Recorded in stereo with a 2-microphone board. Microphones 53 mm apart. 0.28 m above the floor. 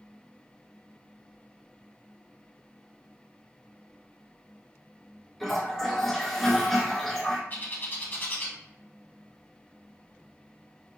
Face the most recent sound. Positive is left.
turn(degrees=40)  # may be behind; listen again after turning